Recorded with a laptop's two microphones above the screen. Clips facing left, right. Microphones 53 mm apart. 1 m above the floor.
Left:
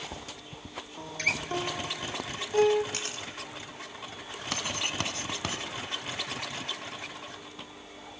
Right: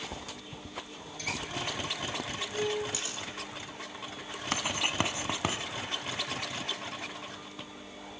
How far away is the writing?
About 1.5 m.